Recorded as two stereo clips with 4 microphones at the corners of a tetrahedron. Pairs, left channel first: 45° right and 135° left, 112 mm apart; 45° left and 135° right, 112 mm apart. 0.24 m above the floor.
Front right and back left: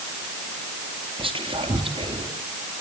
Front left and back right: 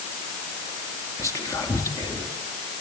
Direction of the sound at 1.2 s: 105° left.